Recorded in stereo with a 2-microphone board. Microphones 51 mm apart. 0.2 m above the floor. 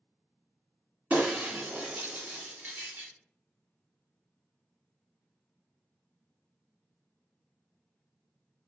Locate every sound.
1.1 s breaking glass: 35° right (ahead or behind), 1.6 m